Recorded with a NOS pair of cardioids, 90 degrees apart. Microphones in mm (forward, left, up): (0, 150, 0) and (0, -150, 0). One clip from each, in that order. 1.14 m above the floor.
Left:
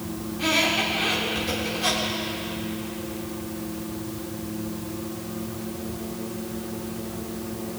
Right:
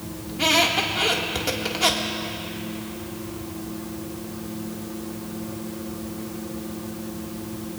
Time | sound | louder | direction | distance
0.3 | a squeak | right 3 dB | 70° right | 1.9 m